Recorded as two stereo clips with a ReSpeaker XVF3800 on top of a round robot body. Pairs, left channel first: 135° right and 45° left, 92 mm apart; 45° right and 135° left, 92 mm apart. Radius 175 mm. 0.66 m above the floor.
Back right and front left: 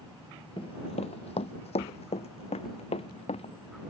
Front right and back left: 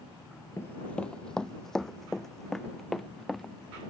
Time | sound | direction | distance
0.6 | running footsteps | 105° right | ?
2.6 | a sliding door | 140° left | ?